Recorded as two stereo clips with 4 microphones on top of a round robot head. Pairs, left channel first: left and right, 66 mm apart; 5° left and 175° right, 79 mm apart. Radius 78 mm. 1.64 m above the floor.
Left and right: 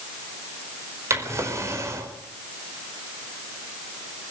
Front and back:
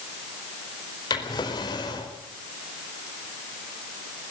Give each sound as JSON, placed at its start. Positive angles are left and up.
{"t": 1.1, "sound": "a drawer", "azimuth_deg": -45, "distance_m": 4.5}